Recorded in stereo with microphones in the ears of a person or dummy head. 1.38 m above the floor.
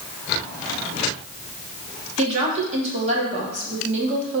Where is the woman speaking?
40° right (ahead or behind), 2 m.